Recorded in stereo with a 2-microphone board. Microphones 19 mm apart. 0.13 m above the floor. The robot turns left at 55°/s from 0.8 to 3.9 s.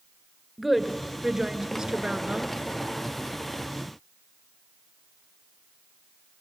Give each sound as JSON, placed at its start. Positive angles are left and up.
{"t": 0.6, "sound": "a woman speaking", "azimuth_deg": -10, "distance_m": 1.6}